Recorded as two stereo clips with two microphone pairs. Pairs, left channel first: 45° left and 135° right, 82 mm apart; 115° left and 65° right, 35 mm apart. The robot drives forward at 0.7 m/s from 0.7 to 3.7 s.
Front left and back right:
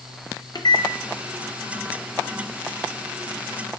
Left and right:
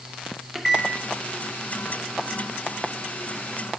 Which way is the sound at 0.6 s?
20° left.